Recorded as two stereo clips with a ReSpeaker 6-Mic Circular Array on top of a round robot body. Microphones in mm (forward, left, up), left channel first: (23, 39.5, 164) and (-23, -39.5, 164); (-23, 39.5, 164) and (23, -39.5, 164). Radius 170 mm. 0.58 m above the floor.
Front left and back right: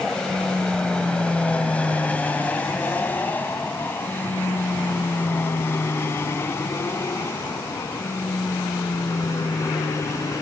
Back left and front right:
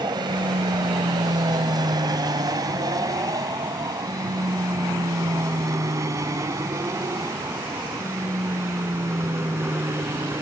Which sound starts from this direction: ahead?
An aircraft, at 0.0 s.